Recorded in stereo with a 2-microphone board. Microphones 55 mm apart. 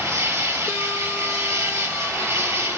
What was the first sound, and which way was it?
An insect, 75° right (ahead or behind).